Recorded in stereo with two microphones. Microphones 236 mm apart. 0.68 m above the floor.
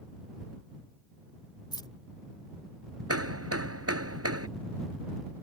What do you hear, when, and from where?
1.7 s keys jangling: 20° left (ahead or behind)
3.1 s hammering: 85° right